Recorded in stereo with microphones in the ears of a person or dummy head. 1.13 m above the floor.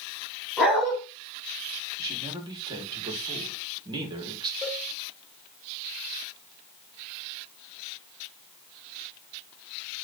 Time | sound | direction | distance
0.6 | a dog barking | centre (ahead or behind) | 3.5 m
2.0 | a man speaking | 25° right (ahead or behind) | 4 m
4.6 | a cowbell | 5° right (ahead or behind) | 4 m